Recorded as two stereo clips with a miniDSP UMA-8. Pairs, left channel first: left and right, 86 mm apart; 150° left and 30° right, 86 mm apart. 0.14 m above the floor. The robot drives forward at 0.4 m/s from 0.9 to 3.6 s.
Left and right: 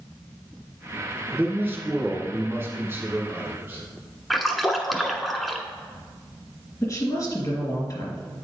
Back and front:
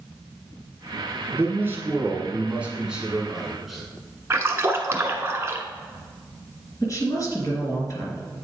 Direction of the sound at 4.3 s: Straight ahead.